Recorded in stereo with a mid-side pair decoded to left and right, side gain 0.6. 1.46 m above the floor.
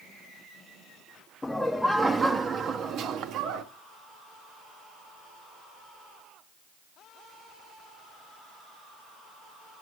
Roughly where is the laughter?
Ahead.